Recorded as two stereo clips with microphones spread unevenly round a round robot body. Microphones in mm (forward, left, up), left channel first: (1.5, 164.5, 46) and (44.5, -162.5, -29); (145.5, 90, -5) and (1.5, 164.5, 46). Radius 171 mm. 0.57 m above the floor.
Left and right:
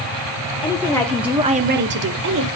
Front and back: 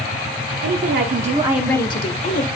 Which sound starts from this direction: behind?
A woman speaking, at 0.6 s.